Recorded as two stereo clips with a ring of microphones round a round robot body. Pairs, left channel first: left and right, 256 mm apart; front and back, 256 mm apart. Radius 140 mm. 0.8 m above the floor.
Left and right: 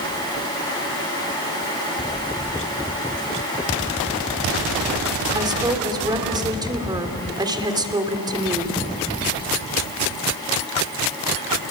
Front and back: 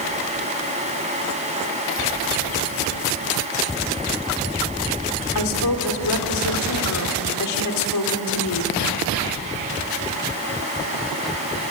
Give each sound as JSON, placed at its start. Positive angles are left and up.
{"t": 5.3, "sound": "a woman speaking", "azimuth_deg": -15, "distance_m": 3.0}